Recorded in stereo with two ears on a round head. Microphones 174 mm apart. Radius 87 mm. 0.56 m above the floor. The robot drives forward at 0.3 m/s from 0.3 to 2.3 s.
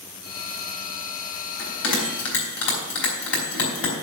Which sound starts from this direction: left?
A bell, at 1.6 s.